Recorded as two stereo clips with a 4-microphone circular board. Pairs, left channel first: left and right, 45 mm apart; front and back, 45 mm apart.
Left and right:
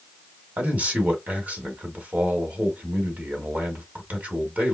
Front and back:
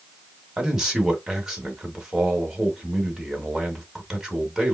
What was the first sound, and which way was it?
A man speaking, 110° right.